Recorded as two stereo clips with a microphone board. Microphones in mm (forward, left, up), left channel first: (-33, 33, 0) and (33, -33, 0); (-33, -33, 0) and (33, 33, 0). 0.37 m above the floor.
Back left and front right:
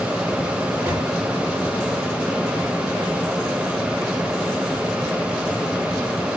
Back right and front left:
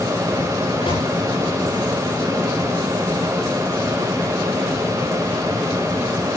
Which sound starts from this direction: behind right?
A microwave, at 0.8 s.